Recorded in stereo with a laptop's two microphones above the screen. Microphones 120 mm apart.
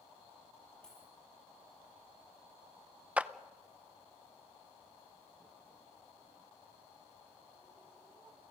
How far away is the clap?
About 0.5 m.